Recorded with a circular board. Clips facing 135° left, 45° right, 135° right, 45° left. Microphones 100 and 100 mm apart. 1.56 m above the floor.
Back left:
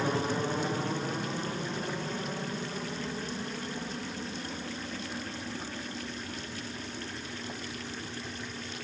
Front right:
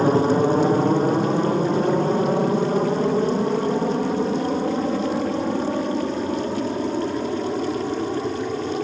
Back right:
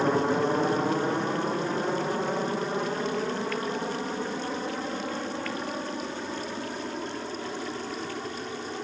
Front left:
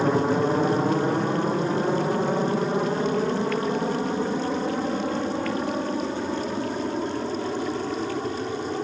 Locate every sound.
0.0 s an aircraft: 40° right; by 8.8 s 25° right